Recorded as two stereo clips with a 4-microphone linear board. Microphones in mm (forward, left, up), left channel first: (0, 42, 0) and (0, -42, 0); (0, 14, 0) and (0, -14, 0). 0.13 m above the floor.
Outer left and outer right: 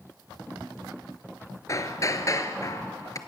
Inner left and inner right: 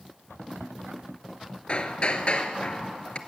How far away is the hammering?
About 1.2 m.